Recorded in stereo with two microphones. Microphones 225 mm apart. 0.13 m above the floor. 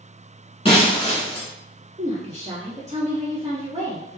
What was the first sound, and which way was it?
Breaking glass, 25° left (ahead or behind).